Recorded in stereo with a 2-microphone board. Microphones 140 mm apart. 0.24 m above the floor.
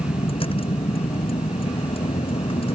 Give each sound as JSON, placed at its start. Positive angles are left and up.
{"t": 0.0, "sound": "a vehicle", "side_deg": 40}